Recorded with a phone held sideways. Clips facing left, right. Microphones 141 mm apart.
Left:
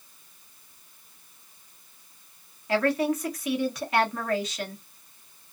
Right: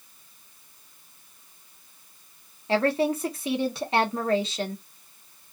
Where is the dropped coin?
No dropped coin in this recording.